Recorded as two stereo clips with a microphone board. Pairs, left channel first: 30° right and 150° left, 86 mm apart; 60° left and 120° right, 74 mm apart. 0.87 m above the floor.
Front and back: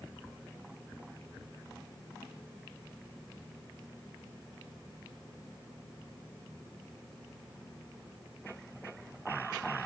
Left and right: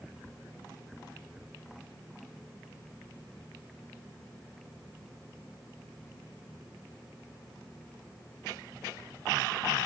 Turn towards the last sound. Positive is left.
No sound to turn to.